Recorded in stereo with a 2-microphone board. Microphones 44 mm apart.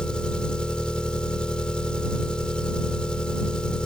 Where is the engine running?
25° left (ahead or behind).